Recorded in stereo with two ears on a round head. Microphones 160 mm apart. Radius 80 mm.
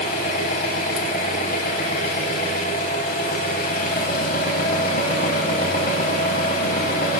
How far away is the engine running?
About 0.9 m.